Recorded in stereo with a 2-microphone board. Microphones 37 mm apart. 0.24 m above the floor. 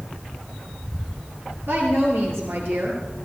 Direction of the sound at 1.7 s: 75° right (ahead or behind).